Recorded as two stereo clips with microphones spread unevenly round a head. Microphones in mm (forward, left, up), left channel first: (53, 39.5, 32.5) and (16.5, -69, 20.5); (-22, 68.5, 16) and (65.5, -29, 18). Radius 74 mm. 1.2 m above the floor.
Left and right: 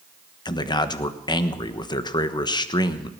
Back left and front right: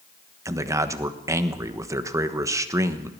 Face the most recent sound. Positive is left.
turn(degrees=20)